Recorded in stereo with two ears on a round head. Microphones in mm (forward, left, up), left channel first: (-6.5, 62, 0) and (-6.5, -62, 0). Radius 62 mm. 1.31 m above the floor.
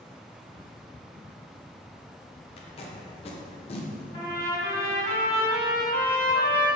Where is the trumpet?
40° left (ahead or behind), 1.6 m.